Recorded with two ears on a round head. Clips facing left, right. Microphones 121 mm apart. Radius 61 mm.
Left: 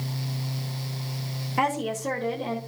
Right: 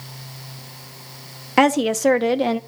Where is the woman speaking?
75° right (ahead or behind), 0.9 m.